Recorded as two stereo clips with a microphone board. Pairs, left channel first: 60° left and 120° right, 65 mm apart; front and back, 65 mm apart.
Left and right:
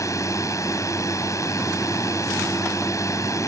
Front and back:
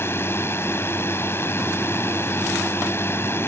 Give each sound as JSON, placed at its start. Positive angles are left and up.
{"t": 0.0, "sound": "a drone", "azimuth_deg": 45}